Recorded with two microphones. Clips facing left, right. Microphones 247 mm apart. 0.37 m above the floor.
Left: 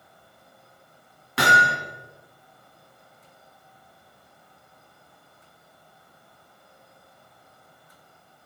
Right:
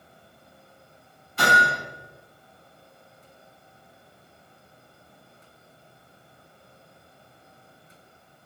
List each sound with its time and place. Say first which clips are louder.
1.4 s hammering: left 1 dB; 80° left, 3 m